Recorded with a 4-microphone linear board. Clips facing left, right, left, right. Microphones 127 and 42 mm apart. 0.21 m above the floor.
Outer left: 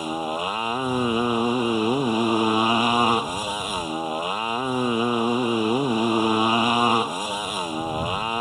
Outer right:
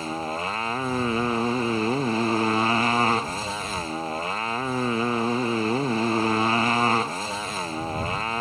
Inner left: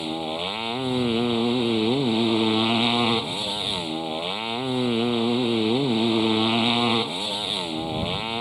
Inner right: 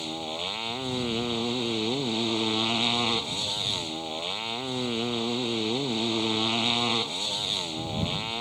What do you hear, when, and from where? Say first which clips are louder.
0.0 s a motorcycle: outer left 3 dB, inner left 5 dB; 15° left (ahead or behind)